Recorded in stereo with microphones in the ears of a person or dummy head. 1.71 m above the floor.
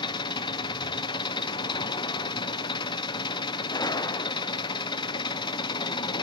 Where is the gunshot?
20° left (ahead or behind), 0.6 m.